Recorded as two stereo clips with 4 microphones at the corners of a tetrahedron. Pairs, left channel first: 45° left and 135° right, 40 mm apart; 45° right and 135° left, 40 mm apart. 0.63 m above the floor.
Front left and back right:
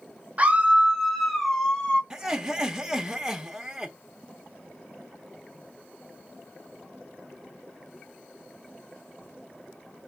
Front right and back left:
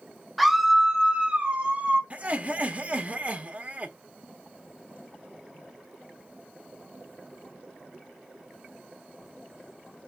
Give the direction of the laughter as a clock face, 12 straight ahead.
7 o'clock.